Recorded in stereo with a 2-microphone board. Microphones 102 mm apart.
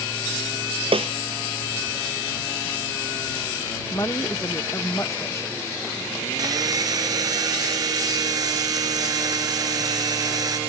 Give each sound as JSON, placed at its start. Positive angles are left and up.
{"t": 0.9, "sound": "a snare drum", "side_deg": -70}
{"t": 3.9, "sound": "a woman speaking", "side_deg": 30}
{"t": 6.4, "sound": "sawing", "side_deg": -40}